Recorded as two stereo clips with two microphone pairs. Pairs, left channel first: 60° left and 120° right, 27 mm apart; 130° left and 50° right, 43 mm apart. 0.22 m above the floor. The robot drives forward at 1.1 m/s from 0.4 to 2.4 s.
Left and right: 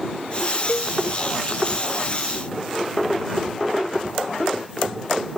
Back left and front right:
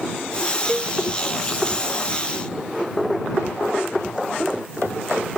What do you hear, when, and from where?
0.7 s a cowbell: 50° left